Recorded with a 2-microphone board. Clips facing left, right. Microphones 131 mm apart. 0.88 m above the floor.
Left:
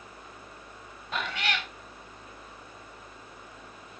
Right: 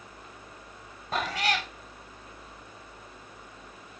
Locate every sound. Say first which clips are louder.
1.1 s a cat meowing: right 4 dB; 40° right (ahead or behind), 1.0 m